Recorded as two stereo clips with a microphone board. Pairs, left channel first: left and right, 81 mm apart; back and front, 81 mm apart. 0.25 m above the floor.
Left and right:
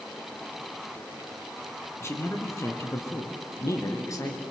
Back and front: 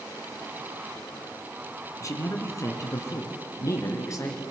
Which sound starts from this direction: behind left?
A man speaking, at 2.0 s.